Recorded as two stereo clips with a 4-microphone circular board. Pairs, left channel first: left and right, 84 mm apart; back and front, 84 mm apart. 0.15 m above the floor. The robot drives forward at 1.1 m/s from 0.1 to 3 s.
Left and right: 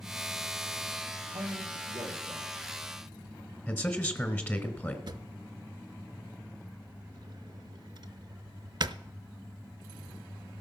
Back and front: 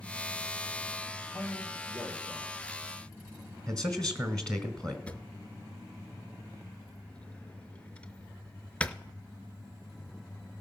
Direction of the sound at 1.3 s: 105° right.